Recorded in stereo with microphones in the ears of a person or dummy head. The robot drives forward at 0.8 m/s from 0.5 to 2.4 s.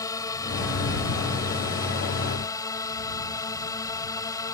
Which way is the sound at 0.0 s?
20° left (ahead or behind).